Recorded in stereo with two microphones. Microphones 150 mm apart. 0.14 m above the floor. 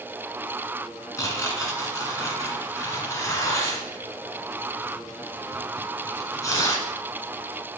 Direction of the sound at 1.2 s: 20° left (ahead or behind).